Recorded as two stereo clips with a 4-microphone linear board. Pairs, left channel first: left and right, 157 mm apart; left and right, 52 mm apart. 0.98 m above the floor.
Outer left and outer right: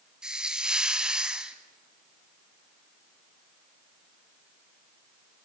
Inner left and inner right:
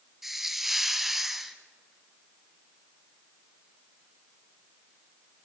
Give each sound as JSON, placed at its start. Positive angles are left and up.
{"t": 0.2, "sound": "a hiss", "side_deg": -5, "distance_m": 1.2}